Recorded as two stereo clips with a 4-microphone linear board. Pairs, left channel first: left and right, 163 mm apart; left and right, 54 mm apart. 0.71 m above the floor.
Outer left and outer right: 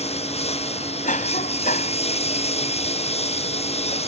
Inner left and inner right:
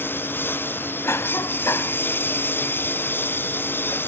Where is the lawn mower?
45° left (ahead or behind).